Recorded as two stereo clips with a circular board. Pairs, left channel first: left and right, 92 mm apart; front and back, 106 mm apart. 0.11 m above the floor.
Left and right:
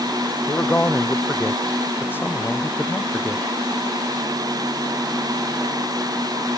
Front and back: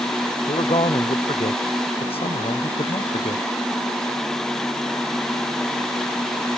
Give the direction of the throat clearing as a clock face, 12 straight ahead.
I don't hear throat clearing.